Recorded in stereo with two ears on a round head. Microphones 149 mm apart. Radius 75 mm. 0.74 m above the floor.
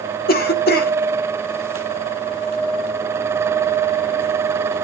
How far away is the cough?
About 1.9 m.